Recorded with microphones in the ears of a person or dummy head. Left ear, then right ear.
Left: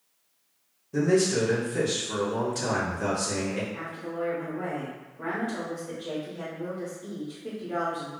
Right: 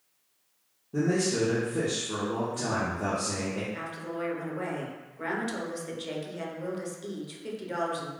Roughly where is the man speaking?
Left.